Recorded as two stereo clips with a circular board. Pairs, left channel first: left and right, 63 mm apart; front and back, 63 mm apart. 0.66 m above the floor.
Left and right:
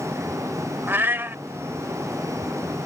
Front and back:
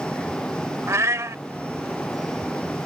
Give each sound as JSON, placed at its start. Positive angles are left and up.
{"t": 0.9, "sound": "a cat meowing", "azimuth_deg": -140}